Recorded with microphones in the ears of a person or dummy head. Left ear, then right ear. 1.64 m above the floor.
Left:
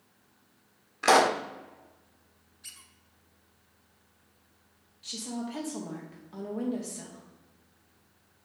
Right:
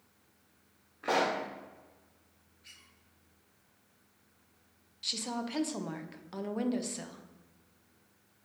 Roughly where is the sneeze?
I don't hear a sneeze.